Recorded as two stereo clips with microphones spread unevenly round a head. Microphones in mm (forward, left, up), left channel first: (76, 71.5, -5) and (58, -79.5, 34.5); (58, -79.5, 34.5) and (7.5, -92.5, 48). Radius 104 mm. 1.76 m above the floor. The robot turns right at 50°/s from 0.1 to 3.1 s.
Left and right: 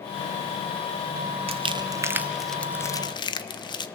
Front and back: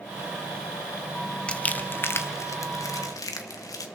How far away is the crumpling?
About 1.0 m.